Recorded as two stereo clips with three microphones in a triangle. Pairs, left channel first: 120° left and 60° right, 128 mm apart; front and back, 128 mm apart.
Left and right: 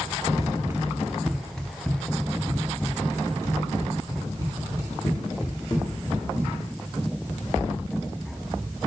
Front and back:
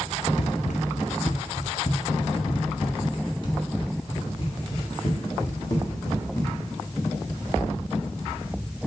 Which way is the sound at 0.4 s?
5° right.